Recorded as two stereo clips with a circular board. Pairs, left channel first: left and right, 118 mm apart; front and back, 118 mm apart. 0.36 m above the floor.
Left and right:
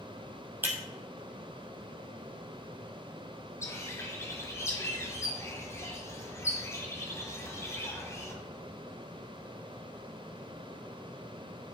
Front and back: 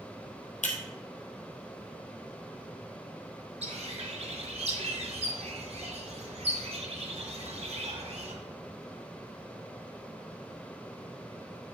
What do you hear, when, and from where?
0.6 s breaking glass: 15° right, 1.7 m
3.6 s a bird: 155° left, 1.4 m